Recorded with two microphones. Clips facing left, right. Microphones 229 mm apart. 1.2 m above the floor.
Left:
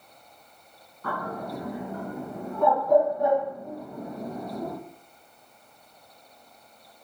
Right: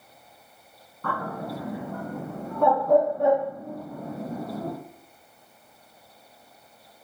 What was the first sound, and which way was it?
A bird, 65° right (ahead or behind).